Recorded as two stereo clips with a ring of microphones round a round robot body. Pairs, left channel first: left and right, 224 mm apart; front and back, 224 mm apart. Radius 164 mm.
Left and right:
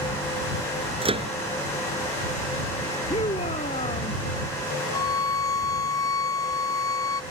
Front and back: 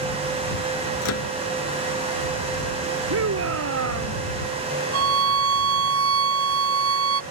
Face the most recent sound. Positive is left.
turn(degrees=170)